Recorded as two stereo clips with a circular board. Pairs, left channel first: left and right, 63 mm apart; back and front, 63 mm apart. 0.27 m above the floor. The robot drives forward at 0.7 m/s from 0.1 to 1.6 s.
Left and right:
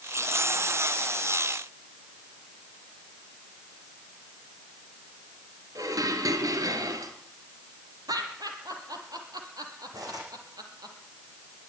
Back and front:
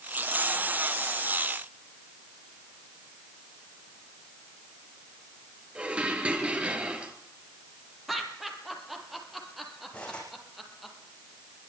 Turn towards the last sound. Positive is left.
turn(degrees=-105)